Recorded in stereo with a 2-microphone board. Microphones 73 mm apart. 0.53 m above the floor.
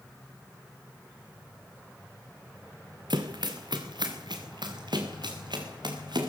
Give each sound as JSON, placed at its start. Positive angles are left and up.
{"t": 3.1, "sound": "running footsteps", "side_deg": -75, "distance_m": 2.5}